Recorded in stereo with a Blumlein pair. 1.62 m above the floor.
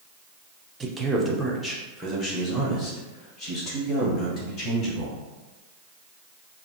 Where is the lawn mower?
No lawn mower in this recording.